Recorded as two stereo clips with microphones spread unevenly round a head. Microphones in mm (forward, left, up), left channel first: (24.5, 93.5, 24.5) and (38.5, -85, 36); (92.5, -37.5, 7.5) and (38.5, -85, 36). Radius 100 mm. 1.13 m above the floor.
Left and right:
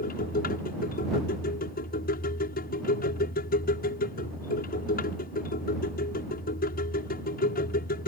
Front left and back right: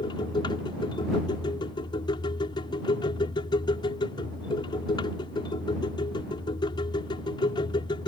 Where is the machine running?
60° left.